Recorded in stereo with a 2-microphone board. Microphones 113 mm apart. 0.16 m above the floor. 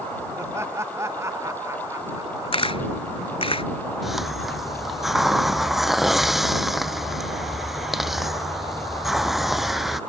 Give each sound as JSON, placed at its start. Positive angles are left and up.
{"t": 0.4, "sound": "laughter", "side_deg": -25}
{"t": 2.5, "sound": "a camera shutter", "side_deg": 60}
{"t": 4.0, "sound": "a hiss", "side_deg": 0}